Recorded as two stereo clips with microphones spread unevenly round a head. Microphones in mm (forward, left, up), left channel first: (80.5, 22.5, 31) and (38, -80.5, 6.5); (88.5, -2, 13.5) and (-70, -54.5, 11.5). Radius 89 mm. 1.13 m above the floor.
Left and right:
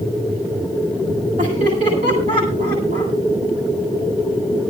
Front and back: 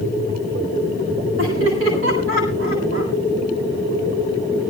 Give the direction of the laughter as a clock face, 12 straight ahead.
6 o'clock.